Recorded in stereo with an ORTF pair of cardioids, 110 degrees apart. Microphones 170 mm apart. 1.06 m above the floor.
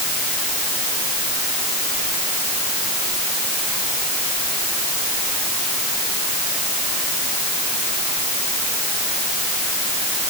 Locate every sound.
Only background noise.